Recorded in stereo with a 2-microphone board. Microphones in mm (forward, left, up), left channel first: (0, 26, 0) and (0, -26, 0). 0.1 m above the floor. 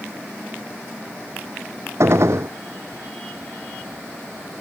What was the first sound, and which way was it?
A gunshot, 60° right (ahead or behind).